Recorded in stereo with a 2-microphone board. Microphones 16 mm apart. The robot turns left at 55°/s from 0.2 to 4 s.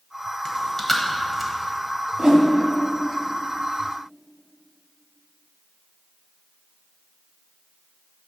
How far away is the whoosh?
About 1.2 m.